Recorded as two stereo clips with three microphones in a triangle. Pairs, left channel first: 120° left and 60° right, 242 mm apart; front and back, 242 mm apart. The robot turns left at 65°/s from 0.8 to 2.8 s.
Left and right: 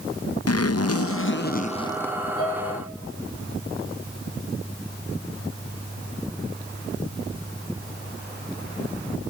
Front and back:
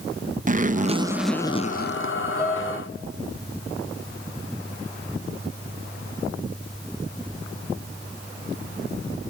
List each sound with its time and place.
0.5 s a zipper: 120° left, 0.6 m; by 2.1 s 30° left, 0.6 m
2.4 s a piano: 105° left, 10 m; by 2.8 s 80° left, 10 m